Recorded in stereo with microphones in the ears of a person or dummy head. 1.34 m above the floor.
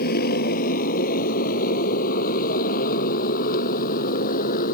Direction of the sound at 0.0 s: 50° left (ahead or behind).